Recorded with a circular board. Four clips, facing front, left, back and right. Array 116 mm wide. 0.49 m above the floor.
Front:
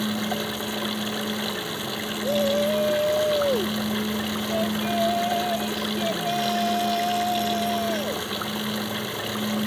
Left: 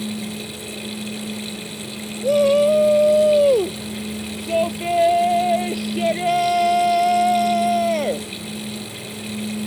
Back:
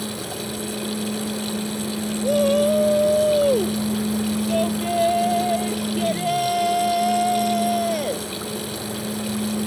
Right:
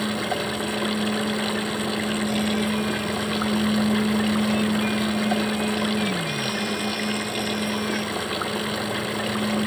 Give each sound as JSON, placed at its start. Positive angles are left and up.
{"t": 0.0, "sound": "running water", "azimuth_deg": -70}
{"t": 2.2, "sound": "a shout", "azimuth_deg": 105}